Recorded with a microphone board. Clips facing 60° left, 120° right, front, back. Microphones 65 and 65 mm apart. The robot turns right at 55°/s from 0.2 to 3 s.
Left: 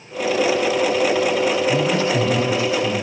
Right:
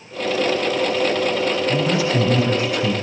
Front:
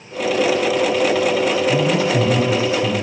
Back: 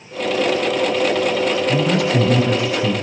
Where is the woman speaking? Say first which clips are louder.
Left 1 dB, even; 150° left, 8 m; by 2.9 s 140° right, 8 m.